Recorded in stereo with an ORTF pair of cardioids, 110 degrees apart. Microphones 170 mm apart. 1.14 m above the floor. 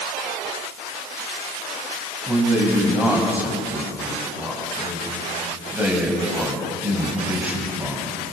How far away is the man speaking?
About 9 m.